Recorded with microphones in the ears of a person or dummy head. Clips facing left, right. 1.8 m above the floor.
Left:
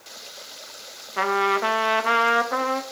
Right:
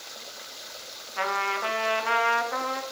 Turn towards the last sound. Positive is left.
turn(degrees=55)  # may be behind; listen again after turning